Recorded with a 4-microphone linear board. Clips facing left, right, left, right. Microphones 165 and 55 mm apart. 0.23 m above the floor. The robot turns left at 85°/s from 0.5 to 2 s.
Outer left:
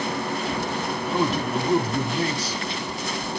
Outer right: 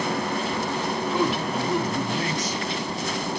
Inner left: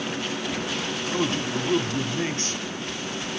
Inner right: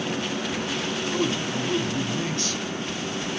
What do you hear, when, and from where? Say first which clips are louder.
1.1 s a man speaking: outer left 2 dB, inner left 1 dB; 125° left, 1.4 m; by 2.6 s 50° left, 1.4 m